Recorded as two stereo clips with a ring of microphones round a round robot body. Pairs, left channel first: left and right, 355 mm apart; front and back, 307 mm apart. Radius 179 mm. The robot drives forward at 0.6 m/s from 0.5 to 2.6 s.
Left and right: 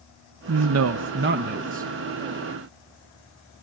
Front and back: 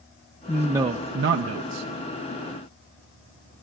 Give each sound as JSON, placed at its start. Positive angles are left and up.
{"t": 0.5, "sound": "a man speaking", "azimuth_deg": -80, "distance_m": 0.5}